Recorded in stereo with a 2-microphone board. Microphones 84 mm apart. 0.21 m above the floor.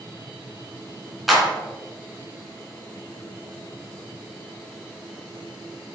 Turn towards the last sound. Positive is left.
turn(degrees=0)  # may be behind; listen again after turning